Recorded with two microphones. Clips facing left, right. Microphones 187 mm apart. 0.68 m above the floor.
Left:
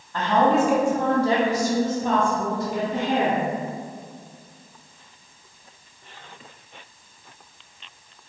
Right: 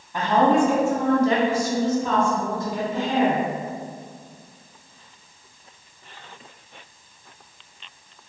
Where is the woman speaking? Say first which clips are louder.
Right 1 dB; 15° right (ahead or behind), 0.9 m; by 3.5 s 65° left (ahead or behind), 1.9 m.